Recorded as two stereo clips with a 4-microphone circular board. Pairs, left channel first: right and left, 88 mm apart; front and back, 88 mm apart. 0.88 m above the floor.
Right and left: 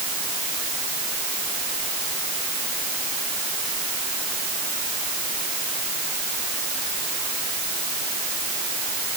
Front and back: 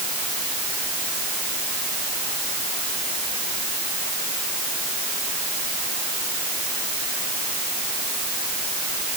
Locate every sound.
Only background noise.